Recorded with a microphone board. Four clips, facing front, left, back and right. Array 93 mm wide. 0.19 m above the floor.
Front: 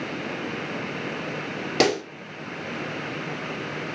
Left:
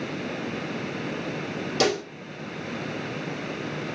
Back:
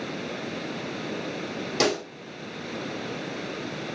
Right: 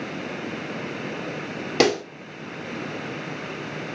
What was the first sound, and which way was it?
A pop, 60° right.